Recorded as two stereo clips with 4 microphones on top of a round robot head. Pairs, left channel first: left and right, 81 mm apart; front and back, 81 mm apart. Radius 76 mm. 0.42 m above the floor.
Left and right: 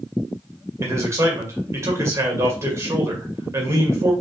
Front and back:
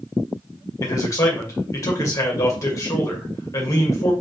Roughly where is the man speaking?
Ahead right.